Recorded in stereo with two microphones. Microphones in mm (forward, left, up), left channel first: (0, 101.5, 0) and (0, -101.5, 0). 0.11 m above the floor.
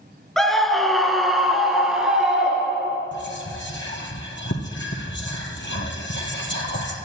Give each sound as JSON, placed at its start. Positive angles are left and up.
{"t": 0.4, "sound": "a scream", "side_deg": 0, "distance_m": 1.4}
{"t": 3.1, "sound": "whispering", "side_deg": 65, "distance_m": 3.0}